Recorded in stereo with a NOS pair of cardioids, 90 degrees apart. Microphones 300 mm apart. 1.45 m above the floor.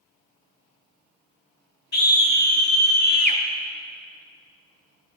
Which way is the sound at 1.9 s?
30° left.